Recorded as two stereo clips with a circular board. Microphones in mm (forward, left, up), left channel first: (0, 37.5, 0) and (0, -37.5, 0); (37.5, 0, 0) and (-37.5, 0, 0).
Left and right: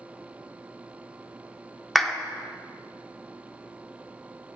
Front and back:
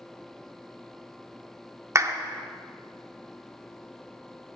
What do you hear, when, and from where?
1.9 s a clap: 175° left, 0.5 m